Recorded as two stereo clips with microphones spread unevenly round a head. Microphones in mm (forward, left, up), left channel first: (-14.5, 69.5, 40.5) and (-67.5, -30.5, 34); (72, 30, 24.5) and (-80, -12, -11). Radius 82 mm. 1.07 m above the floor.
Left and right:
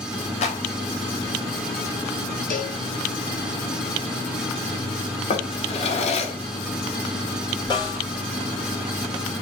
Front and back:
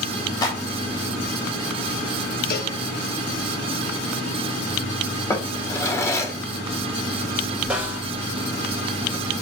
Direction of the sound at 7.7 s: 115° left.